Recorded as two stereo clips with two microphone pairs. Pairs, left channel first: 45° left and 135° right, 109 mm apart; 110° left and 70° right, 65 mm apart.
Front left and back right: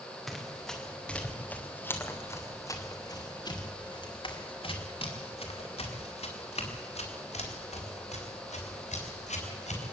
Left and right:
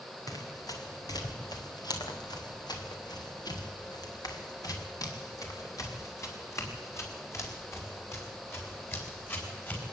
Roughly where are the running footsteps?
Behind left.